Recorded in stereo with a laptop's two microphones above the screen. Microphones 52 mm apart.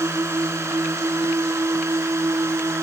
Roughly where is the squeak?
I don't hear a squeak.